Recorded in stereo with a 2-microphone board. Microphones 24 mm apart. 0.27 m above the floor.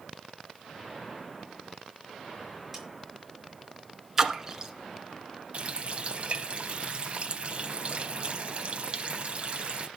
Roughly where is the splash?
Centre.